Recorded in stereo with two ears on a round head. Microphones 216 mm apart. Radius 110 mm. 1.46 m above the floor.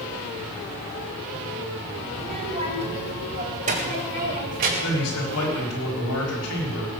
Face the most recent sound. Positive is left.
turn(degrees=65)  # may be behind; listen again after turning